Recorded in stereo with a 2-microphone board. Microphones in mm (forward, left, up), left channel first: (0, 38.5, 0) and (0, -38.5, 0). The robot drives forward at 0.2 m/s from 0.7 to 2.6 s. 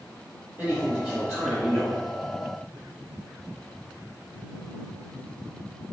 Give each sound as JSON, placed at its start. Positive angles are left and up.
{"t": 0.6, "sound": "a man speaking", "side_deg": -15, "distance_m": 1.3}